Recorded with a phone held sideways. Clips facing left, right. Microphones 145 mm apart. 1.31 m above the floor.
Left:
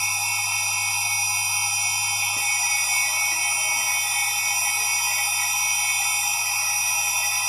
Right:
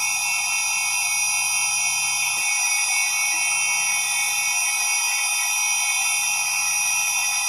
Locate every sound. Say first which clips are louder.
0.0 s a machine running: even; 50° left (ahead or behind), 1.7 m